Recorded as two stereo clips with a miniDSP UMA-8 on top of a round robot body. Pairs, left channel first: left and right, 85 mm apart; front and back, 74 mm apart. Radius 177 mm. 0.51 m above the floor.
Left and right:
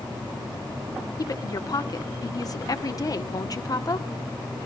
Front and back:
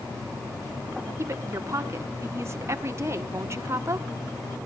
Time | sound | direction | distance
1.2 | a woman speaking | 130° left | 1.5 m